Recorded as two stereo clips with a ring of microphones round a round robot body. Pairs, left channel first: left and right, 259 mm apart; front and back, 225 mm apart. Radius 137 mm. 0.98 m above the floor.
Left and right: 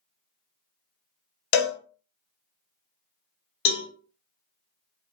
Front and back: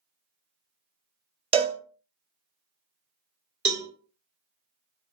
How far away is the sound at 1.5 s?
About 0.5 m.